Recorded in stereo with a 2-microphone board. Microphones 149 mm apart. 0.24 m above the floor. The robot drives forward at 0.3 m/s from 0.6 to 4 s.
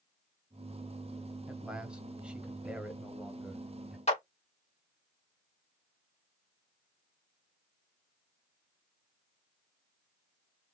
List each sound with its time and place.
1.5 s a man speaking: 5° right (ahead or behind), 0.9 m
4.1 s a clap: 45° left (ahead or behind), 1.5 m